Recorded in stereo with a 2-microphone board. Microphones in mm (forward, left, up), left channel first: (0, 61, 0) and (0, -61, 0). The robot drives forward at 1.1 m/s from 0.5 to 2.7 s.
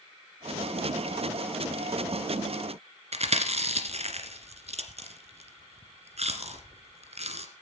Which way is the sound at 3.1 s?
60° right (ahead or behind).